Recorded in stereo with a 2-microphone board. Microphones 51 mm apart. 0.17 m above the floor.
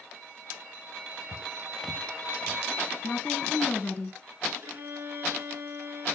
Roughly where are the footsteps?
Left.